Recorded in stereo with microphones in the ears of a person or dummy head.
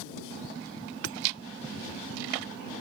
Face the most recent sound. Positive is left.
turn(degrees=-85)